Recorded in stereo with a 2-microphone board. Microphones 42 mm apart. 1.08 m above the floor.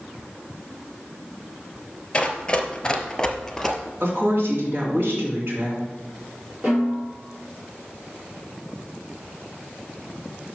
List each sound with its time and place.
2.1 s running footsteps: 20° left (ahead or behind), 1.1 m; by 3.8 s 5° left (ahead or behind), 1.2 m
4.0 s a woman speaking: 55° right (ahead or behind), 2.5 m
6.6 s a snare drum: 30° right (ahead or behind), 3.5 m